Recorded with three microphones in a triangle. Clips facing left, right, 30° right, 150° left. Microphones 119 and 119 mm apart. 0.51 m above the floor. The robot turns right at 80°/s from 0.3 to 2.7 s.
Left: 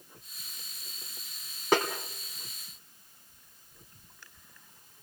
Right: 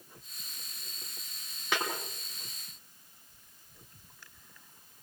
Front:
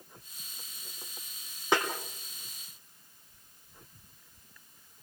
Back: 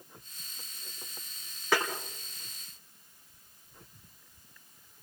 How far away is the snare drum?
About 4 m.